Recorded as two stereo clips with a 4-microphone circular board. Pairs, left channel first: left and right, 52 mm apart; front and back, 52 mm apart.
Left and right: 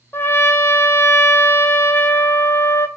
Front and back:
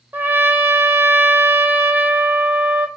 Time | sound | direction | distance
0.1 | a trumpet | 130° left | 0.6 m